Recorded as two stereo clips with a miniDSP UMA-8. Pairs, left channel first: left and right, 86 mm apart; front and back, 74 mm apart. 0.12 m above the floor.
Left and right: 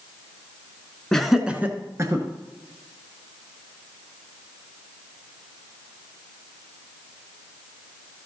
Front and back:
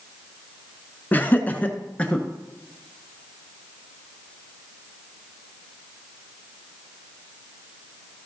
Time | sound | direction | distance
1.1 | laughter | 15° left | 1.2 m